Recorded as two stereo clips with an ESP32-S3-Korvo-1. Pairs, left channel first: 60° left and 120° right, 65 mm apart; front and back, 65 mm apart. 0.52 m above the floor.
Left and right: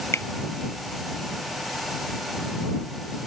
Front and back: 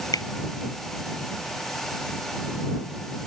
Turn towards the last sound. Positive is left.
turn(degrees=10)